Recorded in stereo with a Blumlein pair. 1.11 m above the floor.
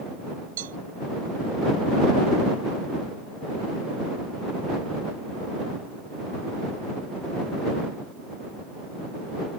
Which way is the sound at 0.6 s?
60° right.